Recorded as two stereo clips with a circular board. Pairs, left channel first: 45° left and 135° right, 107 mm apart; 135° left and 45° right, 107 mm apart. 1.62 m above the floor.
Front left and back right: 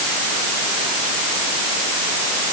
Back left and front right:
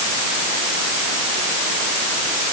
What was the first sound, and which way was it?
Only background noise.